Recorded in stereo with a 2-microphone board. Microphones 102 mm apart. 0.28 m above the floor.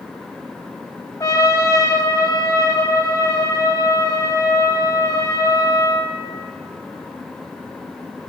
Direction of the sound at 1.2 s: 30° left (ahead or behind).